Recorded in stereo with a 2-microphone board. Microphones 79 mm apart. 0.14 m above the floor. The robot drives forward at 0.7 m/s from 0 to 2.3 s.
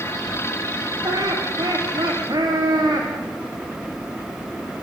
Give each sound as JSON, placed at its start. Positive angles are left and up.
{"t": 1.0, "sound": "laughter", "side_deg": -65, "distance_m": 8.5}